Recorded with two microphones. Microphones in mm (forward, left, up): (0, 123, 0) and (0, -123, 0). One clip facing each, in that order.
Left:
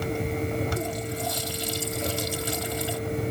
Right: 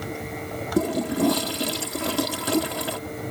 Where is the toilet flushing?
75° right (ahead or behind).